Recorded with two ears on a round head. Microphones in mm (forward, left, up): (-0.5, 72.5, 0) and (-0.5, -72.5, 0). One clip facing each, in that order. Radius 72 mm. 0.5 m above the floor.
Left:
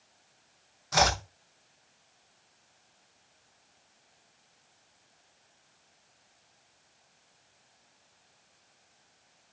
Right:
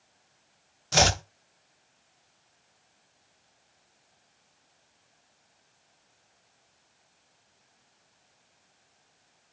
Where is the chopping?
35° right (ahead or behind), 0.6 m.